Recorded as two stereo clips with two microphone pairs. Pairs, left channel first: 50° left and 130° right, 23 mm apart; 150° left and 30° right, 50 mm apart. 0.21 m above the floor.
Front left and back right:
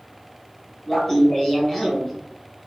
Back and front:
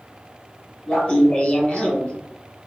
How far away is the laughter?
About 1.3 m.